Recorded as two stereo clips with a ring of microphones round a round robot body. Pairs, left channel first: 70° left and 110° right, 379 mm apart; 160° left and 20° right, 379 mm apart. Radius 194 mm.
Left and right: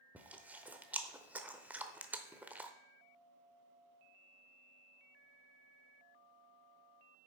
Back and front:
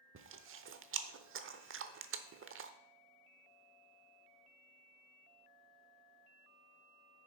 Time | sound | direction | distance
0.1 | chewing | 30° right | 0.8 m